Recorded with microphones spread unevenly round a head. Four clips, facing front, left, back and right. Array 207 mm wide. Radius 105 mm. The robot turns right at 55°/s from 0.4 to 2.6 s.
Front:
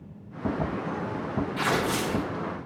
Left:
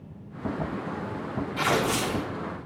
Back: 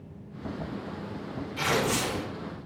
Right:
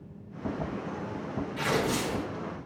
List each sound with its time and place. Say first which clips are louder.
1.6 s tearing paper: left 3 dB, back 1 dB; 85° left, 2 m; by 2.2 s 120° left, 2 m